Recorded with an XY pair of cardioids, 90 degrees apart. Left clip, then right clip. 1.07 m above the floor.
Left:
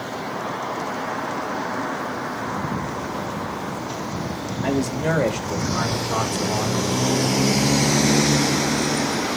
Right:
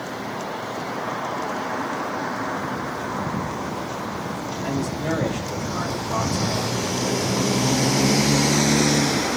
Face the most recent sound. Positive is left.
turn(degrees=40)